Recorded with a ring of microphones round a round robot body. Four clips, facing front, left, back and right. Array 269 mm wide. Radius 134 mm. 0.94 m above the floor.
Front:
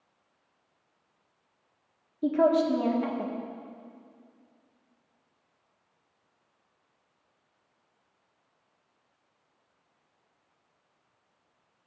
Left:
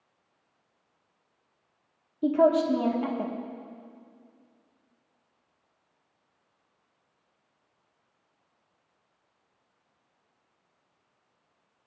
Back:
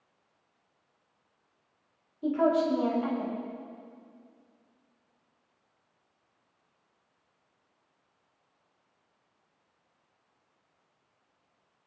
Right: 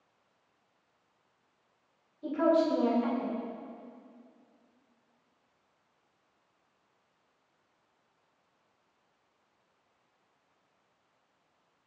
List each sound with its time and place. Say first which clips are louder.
2.2 s a woman speaking: left 5 dB, front 2 dB; 60° left, 1.6 m